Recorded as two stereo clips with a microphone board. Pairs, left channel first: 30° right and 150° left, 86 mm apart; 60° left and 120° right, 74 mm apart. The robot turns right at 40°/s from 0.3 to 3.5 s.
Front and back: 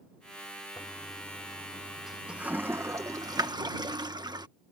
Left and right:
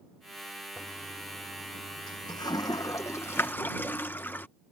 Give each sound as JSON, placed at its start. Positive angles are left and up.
{"t": 0.8, "sound": "a toilet flushing", "azimuth_deg": 15}